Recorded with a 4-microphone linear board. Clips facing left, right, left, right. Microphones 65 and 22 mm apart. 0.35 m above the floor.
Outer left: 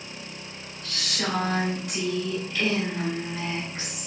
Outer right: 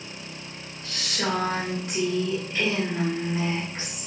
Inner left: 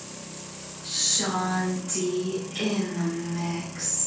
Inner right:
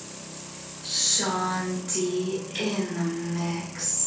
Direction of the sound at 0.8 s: 30° right (ahead or behind).